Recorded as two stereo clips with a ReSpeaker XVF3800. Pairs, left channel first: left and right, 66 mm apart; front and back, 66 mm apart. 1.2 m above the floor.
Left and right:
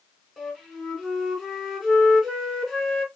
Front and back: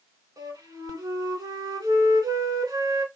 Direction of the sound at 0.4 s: 175° right.